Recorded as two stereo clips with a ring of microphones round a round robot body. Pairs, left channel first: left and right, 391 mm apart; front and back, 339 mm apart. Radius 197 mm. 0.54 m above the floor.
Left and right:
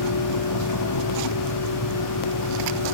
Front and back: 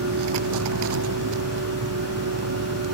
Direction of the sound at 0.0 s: 135° left.